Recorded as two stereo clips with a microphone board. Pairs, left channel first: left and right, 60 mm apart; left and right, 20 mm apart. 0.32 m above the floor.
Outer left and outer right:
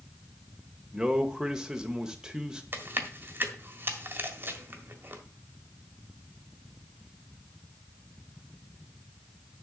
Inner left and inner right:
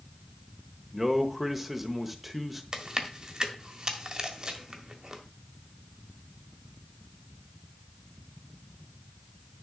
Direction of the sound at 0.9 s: 10° right (ahead or behind).